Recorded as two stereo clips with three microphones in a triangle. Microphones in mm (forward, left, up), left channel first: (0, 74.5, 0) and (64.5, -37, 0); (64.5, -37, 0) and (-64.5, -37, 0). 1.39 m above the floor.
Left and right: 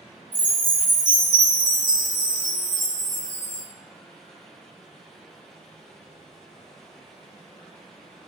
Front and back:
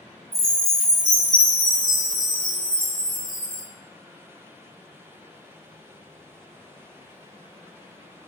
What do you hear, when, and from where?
0.3 s a chime: 65° right, 1.5 m